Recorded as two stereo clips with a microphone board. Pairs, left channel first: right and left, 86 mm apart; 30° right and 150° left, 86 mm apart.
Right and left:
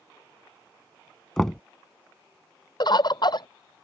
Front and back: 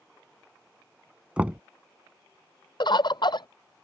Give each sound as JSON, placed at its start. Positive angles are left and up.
{"t": 1.4, "sound": "knocking", "azimuth_deg": -165}
{"t": 2.8, "sound": "a bird", "azimuth_deg": -60}